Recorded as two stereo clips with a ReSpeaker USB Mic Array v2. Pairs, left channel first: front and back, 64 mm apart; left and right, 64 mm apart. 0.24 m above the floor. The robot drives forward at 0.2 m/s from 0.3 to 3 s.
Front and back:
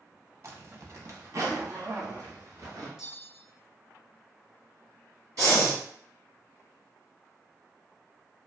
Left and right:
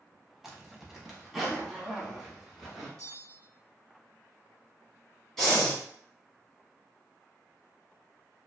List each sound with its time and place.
0.4 s a zipper: 170° right, 0.6 m; by 2.9 s 175° right, 1.0 m
3.0 s a bell: 95° right, 0.8 m
5.4 s breathing: 170° left, 1.5 m